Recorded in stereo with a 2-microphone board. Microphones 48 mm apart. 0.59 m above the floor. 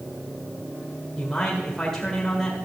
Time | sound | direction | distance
1.2 | a man speaking | 10° left (ahead or behind) | 1.6 m